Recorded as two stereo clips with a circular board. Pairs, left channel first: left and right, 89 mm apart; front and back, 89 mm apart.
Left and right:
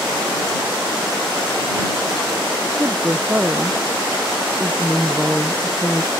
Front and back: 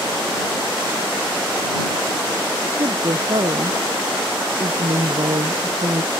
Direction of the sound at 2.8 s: 155° right.